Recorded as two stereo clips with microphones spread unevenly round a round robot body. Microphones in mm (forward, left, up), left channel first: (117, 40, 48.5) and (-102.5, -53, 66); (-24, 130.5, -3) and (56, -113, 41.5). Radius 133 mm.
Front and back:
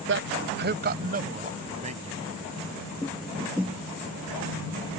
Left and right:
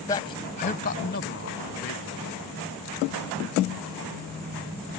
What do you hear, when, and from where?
0.1 s a man speaking: 175° left; by 2.3 s 140° left